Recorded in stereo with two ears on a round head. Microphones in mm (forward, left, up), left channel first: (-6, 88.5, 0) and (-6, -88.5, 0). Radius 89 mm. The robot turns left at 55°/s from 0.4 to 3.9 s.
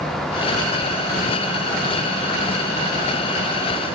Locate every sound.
Only background noise.